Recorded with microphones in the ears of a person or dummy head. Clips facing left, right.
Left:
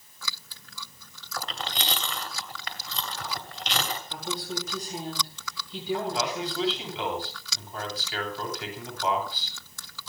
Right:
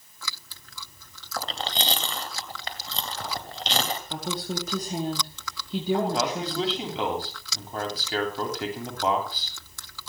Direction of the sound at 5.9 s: 35° right (ahead or behind).